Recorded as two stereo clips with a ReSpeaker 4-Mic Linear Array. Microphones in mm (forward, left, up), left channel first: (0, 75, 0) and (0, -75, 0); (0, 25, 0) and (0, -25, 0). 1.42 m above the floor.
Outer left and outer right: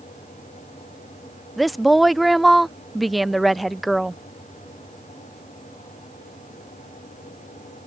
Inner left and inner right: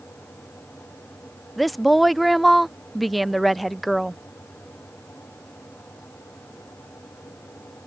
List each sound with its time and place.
1.6 s a woman speaking: centre (ahead or behind)